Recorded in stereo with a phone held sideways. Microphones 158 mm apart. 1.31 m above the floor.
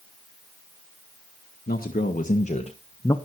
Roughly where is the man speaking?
Left.